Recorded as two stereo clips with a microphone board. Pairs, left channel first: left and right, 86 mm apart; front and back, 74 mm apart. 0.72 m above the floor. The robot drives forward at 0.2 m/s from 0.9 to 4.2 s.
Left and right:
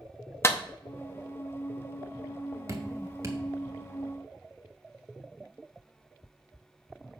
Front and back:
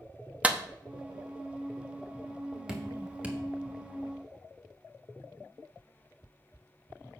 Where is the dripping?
110° right, 1.3 m; by 3.4 s 120° right, 1.3 m.